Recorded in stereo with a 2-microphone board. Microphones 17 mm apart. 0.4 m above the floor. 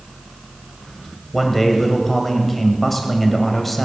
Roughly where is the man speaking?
Centre.